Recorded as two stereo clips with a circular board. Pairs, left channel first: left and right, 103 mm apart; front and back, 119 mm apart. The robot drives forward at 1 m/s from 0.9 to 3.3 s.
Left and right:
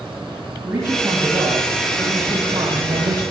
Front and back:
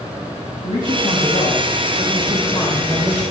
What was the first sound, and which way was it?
A man speaking, 25° right.